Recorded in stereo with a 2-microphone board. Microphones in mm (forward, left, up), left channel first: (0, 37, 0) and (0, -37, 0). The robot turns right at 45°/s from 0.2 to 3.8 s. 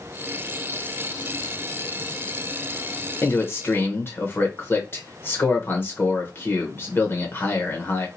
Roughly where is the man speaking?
Left.